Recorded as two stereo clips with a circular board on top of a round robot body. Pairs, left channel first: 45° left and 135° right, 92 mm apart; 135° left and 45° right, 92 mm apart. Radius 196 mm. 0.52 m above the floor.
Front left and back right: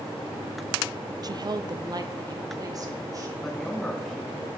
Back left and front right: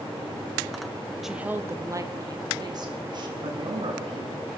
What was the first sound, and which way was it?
A woman speaking, 130° right.